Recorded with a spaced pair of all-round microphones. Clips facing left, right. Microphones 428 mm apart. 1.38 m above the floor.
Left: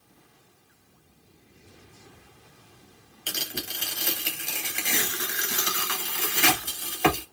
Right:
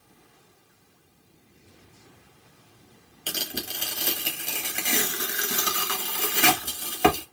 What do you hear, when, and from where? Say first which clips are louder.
3.3 s tearing paper: right 2 dB; 55° right (ahead or behind), 1.1 m